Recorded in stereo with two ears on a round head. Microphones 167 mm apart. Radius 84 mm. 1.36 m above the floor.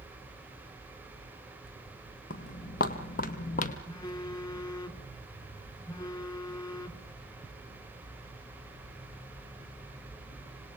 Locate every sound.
2.3 s footsteps: 50° left (ahead or behind), 2.5 m; by 3.8 s 45° left (ahead or behind), 1.8 m
3.9 s a phone buzzing: 25° left (ahead or behind), 1.9 m